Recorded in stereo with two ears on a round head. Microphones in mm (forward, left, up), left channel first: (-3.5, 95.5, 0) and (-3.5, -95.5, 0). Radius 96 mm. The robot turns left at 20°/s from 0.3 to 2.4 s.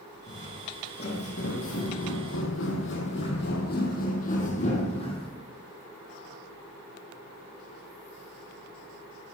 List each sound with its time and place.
0.3 s footsteps: 30° left (ahead or behind), 4 m; by 5.3 s 25° left (ahead or behind), 3 m